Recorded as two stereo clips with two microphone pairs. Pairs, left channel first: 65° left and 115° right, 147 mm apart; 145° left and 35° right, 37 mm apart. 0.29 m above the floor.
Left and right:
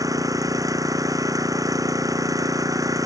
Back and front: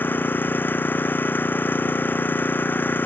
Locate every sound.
0.0 s an engine running: straight behind